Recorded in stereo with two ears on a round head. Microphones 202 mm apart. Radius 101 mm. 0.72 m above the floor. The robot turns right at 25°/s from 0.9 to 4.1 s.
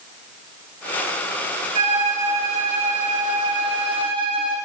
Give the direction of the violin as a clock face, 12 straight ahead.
3 o'clock.